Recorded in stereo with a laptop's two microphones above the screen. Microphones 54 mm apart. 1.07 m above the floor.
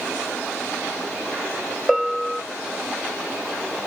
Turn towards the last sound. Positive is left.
turn(degrees=-5)  # may be behind; listen again after turning